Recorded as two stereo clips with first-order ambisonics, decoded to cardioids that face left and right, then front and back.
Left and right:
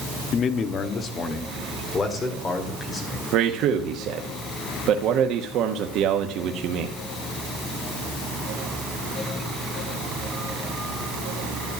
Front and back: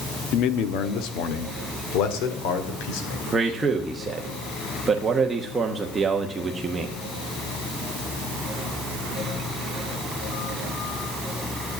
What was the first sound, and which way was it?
A man speaking, 35° left.